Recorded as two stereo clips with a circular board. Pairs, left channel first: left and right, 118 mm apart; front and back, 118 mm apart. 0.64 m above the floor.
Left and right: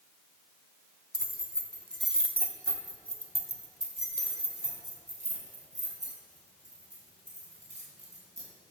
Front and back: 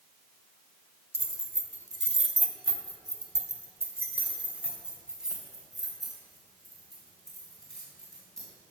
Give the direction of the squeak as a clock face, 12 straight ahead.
I don't hear a squeak.